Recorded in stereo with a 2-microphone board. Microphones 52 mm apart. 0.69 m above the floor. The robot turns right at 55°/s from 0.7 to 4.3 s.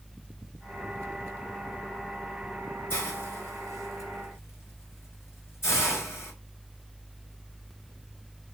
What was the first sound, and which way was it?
A hiss, 45° left (ahead or behind).